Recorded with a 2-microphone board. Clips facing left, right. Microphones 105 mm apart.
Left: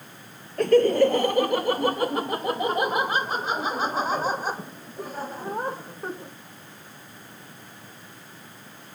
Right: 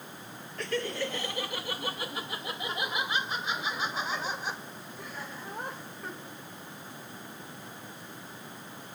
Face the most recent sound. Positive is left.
turn(degrees=40)  # may be behind; listen again after turning